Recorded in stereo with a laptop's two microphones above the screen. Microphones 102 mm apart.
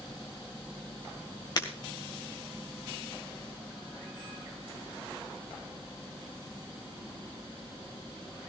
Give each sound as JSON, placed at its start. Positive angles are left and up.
{"t": 1.6, "sound": "breaking glass", "side_deg": 45, "distance_m": 2.0}